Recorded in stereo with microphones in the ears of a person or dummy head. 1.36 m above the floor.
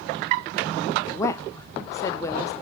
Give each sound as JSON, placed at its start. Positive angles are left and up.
{"t": 1.1, "sound": "a woman speaking", "side_deg": 20, "distance_m": 0.8}